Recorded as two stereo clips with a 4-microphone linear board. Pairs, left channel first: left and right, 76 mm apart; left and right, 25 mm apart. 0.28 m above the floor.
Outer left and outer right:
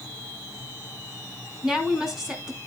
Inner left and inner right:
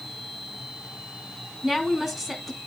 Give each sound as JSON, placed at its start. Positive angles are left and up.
{"t": 1.6, "sound": "a woman speaking", "side_deg": -10, "distance_m": 3.0}